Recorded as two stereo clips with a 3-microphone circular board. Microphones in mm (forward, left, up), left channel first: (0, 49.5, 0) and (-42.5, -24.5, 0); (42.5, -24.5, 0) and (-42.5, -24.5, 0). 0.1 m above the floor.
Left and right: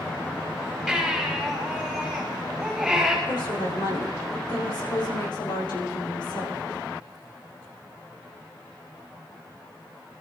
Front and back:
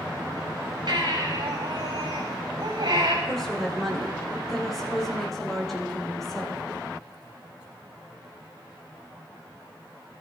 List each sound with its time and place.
0.9 s a baby crying: 150° left, 6 m
3.2 s a woman speaking: 85° left, 5.5 m